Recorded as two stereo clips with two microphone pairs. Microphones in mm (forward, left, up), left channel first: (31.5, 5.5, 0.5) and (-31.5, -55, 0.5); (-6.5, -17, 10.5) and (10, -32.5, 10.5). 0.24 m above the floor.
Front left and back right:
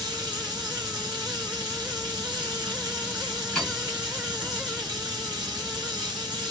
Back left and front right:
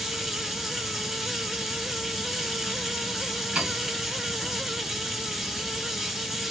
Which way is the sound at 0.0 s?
120° right.